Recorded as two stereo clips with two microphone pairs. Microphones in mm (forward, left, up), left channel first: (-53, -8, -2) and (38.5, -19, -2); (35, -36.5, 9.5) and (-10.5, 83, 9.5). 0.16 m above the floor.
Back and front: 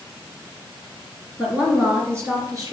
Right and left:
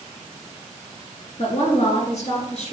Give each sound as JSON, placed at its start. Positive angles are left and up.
{"t": 1.4, "sound": "a woman speaking", "azimuth_deg": -80, "distance_m": 2.5}